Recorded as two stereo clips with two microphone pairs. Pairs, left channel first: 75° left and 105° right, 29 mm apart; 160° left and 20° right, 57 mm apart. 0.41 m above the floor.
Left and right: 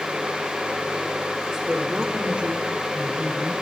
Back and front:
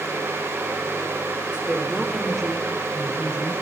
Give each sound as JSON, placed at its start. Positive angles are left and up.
{"t": 1.5, "sound": "a woman speaking", "azimuth_deg": -65, "distance_m": 1.6}